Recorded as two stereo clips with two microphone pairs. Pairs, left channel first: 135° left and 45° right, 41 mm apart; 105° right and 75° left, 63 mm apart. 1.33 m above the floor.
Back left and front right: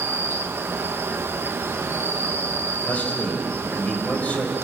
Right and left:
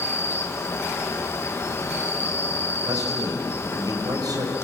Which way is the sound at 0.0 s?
60° right.